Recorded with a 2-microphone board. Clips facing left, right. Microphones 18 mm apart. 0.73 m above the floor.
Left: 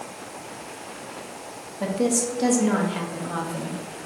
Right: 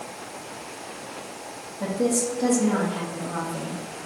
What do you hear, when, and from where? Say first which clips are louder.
1.8 s a woman speaking: left 1 dB; 45° left (ahead or behind), 0.7 m